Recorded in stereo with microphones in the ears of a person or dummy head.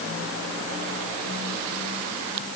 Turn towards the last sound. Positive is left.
No sound to turn to.